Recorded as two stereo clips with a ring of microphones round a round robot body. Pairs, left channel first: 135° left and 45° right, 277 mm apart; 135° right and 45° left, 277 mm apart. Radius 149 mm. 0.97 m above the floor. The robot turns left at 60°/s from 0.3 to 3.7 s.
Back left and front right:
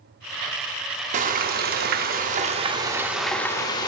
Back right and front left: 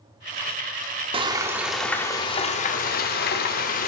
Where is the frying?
10° right, 0.5 m; by 3.9 s 160° right, 0.5 m.